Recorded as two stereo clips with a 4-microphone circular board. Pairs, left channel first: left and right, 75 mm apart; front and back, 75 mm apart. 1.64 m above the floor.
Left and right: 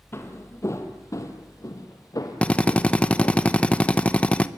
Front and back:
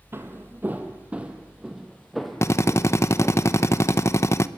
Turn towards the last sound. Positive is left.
turn(degrees=25)